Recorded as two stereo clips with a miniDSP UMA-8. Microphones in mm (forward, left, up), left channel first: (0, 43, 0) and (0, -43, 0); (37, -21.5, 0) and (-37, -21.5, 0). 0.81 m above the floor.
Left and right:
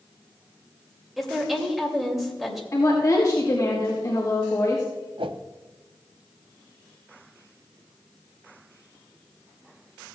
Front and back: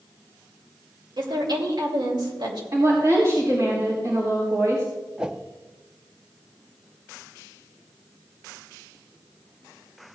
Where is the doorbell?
No doorbell in this recording.